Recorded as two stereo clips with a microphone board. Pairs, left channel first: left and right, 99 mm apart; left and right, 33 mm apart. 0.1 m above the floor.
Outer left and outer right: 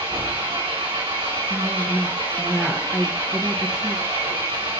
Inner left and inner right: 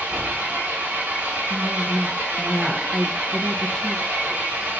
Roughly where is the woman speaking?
Centre.